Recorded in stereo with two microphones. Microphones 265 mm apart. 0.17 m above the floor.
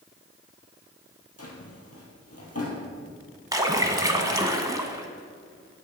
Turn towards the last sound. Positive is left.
turn(degrees=-15)  # may be behind; listen again after turning